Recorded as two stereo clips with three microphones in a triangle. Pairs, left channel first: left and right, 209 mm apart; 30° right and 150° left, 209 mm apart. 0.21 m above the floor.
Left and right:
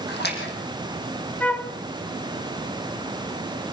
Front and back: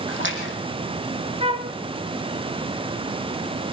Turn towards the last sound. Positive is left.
turn(degrees=165)